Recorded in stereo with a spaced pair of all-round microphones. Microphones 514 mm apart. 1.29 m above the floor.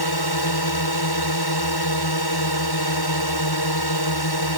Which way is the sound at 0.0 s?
45° left (ahead or behind).